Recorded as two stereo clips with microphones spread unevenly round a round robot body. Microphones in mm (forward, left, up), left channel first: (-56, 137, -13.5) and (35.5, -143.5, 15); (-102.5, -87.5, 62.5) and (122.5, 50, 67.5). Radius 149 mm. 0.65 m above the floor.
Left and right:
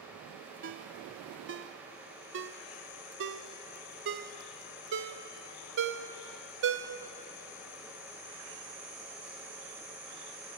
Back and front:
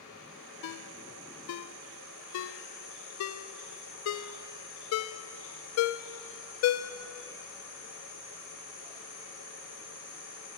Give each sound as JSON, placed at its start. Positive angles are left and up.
{"t": 0.6, "sound": "a ringtone", "azimuth_deg": -125, "distance_m": 0.5}